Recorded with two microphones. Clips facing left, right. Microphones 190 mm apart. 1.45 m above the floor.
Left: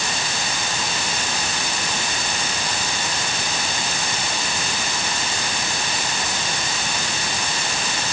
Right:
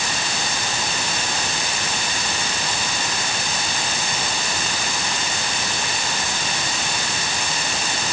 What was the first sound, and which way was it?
Only background noise.